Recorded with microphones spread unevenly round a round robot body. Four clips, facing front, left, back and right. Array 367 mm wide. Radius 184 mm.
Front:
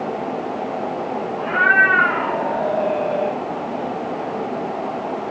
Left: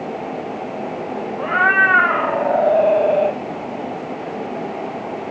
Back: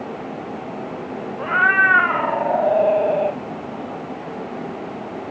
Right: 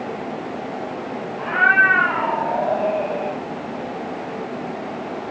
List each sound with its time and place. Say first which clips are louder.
1.4 s a cat meowing: even, front 1 dB; 140° left, 1.7 m; by 3.4 s 110° left, 1.8 m